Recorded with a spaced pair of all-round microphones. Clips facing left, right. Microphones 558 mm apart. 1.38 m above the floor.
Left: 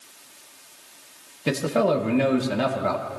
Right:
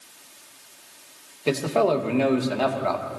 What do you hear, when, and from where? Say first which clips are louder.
1.5 s a man speaking: right 1 dB; 40° left (ahead or behind), 1.4 m